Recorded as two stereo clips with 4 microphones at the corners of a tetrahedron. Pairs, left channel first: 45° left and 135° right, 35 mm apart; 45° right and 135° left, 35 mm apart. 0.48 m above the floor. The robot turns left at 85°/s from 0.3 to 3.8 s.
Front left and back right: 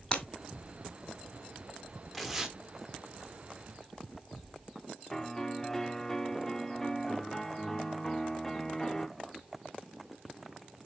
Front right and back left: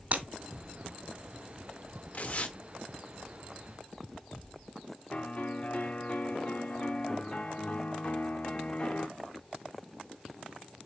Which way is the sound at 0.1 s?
110° left.